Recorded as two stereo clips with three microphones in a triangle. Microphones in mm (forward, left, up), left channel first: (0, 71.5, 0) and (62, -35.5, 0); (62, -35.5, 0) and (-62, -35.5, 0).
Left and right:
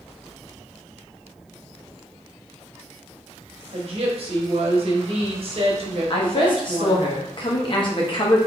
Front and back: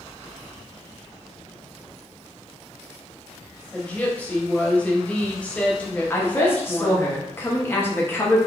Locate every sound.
3.7 s a woman speaking: 80° right, 1.0 m
6.1 s a woman speaking: 70° left, 1.0 m